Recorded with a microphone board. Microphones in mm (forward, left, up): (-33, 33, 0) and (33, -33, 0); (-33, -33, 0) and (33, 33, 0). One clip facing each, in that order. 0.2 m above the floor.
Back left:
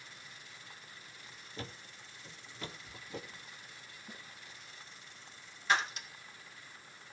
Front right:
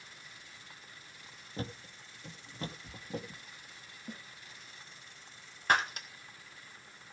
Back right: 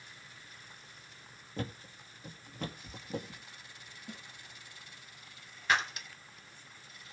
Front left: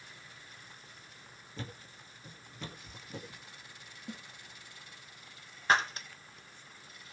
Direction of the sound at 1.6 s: 95° right.